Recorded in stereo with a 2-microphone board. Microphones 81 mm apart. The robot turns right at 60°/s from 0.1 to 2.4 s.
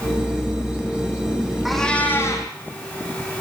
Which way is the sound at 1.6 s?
5° right.